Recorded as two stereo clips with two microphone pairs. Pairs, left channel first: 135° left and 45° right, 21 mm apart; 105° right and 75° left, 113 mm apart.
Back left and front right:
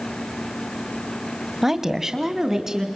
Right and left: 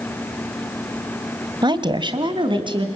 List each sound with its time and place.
1.6 s a woman speaking: 35° left, 1.5 m; by 3.0 s 30° left, 3.5 m